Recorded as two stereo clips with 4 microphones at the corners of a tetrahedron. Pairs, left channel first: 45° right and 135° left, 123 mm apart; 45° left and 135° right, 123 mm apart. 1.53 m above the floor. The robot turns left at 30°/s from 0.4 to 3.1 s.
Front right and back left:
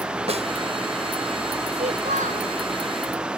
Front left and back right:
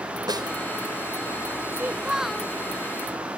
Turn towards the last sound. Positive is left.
turn(degrees=115)